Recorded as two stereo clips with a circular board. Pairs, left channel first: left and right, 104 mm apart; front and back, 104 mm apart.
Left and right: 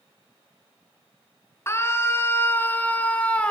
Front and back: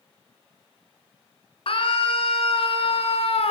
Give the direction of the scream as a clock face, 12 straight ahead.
11 o'clock.